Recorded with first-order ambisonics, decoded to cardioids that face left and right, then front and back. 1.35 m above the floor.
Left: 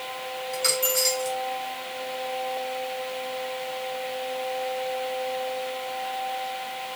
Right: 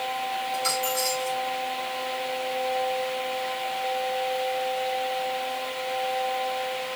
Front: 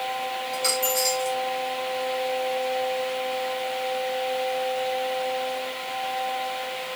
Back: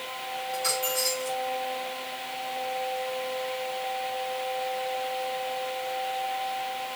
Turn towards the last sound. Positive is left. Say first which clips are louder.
# left 4 dB, front 3 dB
turn(degrees=60)